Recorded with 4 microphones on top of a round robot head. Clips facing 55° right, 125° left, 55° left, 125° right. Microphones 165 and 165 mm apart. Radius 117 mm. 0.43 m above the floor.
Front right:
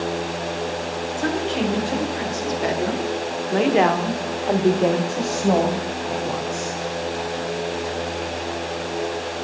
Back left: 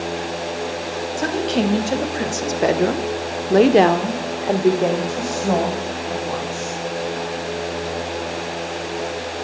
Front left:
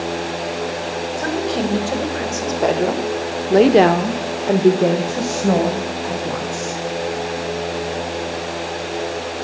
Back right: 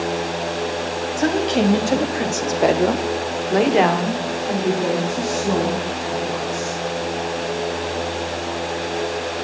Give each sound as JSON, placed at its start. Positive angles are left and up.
{"t": 1.2, "sound": "a woman speaking", "azimuth_deg": 170, "distance_m": 3.0}